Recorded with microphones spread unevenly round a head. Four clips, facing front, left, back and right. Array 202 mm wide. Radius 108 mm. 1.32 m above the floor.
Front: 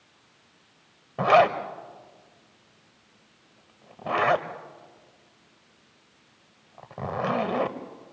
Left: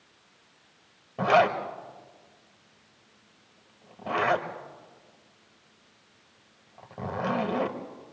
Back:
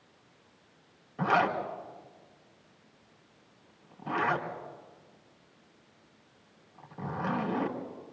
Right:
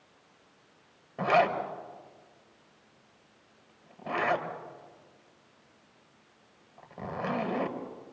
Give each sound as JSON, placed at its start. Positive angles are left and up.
{"t": 1.2, "sound": "a zipper", "azimuth_deg": 20, "distance_m": 1.5}